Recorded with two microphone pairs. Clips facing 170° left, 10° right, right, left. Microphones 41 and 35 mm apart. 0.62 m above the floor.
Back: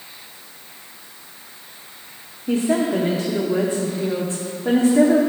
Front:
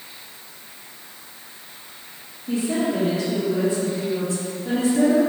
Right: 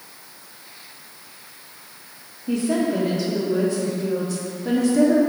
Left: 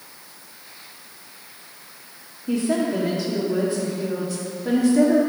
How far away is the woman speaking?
About 1.2 m.